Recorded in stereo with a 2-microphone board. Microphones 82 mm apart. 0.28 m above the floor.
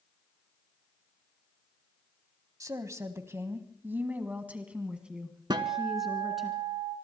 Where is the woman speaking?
45° right (ahead or behind), 1.6 m; by 6.5 s centre (ahead or behind), 3 m.